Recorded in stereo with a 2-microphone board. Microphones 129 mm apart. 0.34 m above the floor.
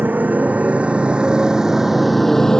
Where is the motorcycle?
10° right (ahead or behind); by 2.6 s 5° left (ahead or behind).